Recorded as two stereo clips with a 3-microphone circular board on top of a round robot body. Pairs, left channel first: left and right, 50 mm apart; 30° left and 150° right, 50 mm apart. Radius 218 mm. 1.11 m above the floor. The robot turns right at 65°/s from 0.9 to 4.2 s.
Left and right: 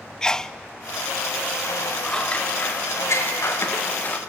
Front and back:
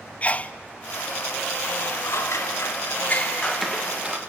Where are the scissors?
15° left, 2 m; by 4.2 s 155° left, 2 m.